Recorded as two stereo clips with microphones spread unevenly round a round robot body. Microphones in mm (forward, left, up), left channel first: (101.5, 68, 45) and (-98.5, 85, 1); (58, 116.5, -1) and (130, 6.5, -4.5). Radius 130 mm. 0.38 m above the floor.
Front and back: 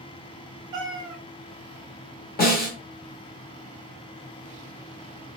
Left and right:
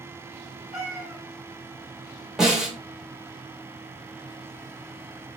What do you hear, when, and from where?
0.7 s a cat meowing: 160° right, 1.0 m
2.4 s a snare drum: 30° left, 1.2 m